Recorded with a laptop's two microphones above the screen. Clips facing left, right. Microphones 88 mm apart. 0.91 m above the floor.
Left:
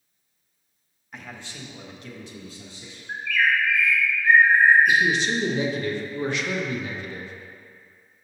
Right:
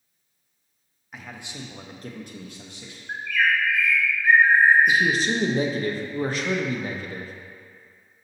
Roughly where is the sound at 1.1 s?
Centre.